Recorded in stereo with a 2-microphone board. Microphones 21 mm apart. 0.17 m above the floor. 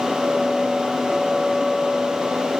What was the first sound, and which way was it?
Only background noise.